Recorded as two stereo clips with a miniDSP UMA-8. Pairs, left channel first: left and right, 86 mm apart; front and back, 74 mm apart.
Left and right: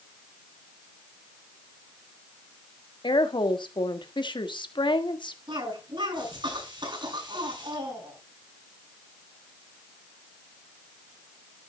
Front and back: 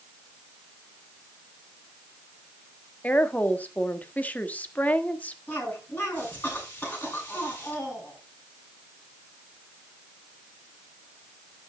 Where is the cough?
65° right, 7.5 m.